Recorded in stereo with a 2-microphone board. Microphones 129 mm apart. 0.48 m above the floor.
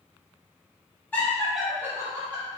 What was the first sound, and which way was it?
Laughter, 15° left (ahead or behind).